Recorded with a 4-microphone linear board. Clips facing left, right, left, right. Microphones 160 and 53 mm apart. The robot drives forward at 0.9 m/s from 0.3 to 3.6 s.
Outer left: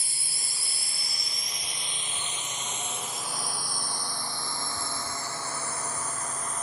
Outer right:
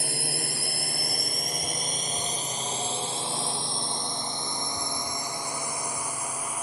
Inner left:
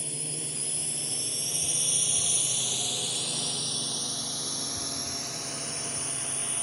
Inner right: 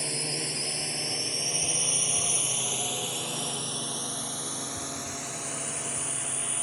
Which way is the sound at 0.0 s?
65° right (ahead or behind).